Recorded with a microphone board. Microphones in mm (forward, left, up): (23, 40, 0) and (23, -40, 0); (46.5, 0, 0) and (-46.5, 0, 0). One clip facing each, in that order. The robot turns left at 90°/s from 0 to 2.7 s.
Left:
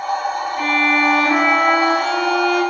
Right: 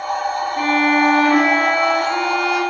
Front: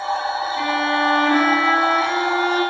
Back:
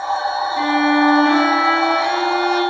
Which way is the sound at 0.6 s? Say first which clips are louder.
Right 2 dB, back 6 dB; 135° right.